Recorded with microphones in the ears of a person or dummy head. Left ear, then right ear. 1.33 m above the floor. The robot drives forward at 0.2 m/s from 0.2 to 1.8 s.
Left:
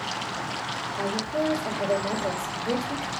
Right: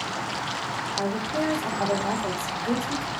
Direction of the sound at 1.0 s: 35° right (ahead or behind).